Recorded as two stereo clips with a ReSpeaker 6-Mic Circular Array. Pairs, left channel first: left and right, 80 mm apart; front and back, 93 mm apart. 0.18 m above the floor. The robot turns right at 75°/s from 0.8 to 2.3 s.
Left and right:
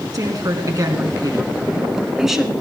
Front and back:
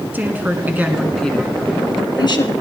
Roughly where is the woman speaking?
Behind right.